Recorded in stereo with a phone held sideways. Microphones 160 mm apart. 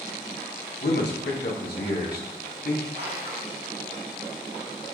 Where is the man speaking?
85° left, 1.3 m; by 2.9 s 65° left (ahead or behind), 2 m.